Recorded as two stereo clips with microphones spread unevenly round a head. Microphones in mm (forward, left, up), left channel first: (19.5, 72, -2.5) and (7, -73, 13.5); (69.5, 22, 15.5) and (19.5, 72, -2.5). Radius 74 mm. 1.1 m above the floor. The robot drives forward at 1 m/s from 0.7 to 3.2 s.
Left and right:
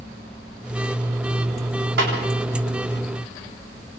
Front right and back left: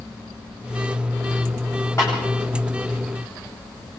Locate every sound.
2.0 s a snare drum: 120° right, 8 m